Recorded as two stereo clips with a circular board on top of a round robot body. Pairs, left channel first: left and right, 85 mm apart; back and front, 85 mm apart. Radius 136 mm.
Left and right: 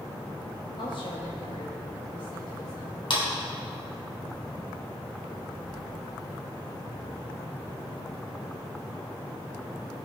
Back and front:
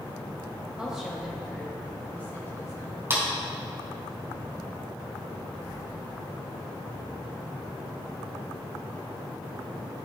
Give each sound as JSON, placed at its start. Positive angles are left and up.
{"t": 0.8, "sound": "a woman speaking", "azimuth_deg": 80, "distance_m": 3.0}
{"t": 3.1, "sound": "a clap", "azimuth_deg": 65, "distance_m": 3.0}